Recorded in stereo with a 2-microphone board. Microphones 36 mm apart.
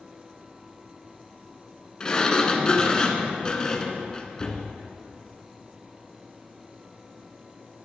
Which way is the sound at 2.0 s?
20° left (ahead or behind).